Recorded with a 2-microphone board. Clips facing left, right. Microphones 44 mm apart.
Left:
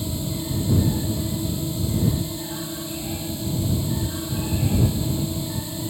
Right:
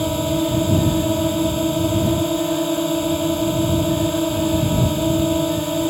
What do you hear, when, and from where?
0.0 s a drone: 60° right (ahead or behind)